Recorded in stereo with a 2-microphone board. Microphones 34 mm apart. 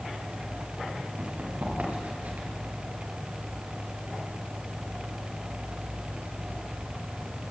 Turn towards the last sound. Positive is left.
turn(degrees=-50)  # may be behind; listen again after turning